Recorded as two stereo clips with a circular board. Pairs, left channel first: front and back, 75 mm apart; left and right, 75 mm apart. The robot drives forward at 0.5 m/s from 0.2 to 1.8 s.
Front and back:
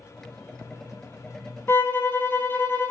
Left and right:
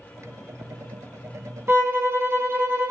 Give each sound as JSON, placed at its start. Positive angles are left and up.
{"t": 1.7, "sound": "a violin", "azimuth_deg": -45, "distance_m": 0.7}